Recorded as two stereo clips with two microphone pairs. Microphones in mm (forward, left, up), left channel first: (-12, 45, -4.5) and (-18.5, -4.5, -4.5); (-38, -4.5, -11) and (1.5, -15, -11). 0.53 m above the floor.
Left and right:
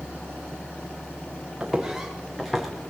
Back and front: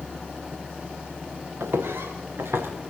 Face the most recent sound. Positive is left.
turn(degrees=-5)